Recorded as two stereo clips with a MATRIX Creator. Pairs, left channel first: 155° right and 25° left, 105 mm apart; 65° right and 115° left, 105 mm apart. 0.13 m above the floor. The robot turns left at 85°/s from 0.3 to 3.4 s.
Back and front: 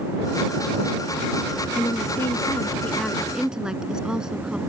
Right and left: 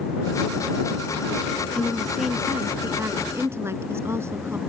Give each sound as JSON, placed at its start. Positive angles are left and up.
{"t": 1.8, "sound": "a woman speaking", "azimuth_deg": -125}